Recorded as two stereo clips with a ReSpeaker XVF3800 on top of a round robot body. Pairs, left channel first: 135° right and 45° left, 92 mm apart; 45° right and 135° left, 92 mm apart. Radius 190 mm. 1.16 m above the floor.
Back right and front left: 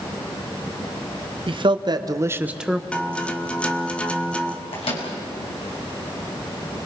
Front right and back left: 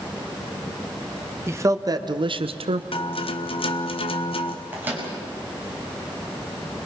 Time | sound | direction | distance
1.5 | a man speaking | 70° left | 1.9 m
2.9 | a guitar | 60° right | 1.7 m
4.7 | a microwave | 155° right | 6 m